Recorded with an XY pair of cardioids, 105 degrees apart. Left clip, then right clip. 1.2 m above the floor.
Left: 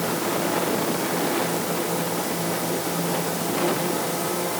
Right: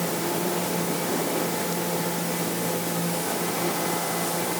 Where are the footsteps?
I don't hear footsteps.